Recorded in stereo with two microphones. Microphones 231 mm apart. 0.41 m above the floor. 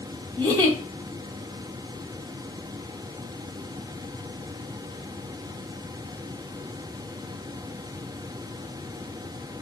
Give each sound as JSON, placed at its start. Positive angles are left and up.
{"t": 0.4, "sound": "a giggle", "side_deg": 10, "distance_m": 1.0}